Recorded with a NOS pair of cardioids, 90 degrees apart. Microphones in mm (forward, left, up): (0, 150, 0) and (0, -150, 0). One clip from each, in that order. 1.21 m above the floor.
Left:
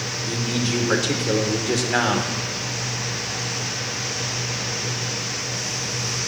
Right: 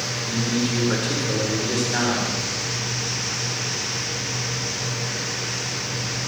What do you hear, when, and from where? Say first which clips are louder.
0.3 s a man speaking: even; 45° left, 5 m